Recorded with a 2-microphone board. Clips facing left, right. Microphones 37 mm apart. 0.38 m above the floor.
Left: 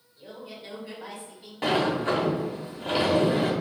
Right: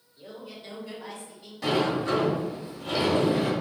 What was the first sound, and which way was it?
A man speaking, centre (ahead or behind).